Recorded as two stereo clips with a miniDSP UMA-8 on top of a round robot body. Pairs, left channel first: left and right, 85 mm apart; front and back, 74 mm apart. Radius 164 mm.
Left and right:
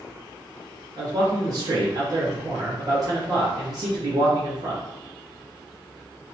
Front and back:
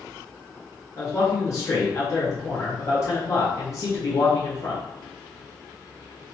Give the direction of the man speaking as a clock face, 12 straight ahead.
2 o'clock.